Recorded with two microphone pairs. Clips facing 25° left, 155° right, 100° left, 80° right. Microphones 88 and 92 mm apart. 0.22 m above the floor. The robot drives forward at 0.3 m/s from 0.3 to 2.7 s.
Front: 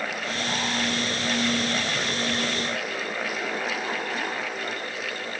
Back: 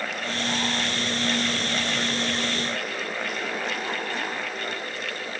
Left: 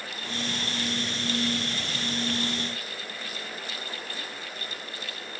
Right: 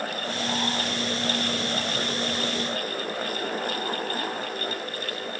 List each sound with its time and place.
Only background noise.